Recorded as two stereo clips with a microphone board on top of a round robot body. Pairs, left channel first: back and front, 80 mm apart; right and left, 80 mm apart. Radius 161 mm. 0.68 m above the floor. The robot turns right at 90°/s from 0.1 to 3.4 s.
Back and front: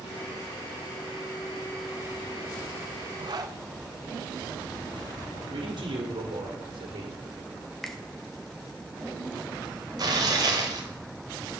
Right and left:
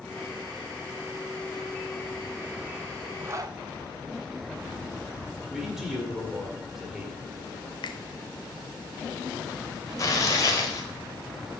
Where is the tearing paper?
40° right, 1.1 m.